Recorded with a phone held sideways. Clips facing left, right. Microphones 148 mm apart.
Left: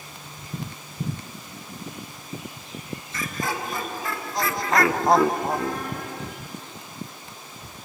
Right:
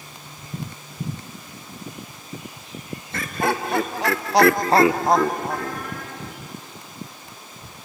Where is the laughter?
60° right (ahead or behind), 1.6 m; by 6.3 s 30° left (ahead or behind), 1.7 m.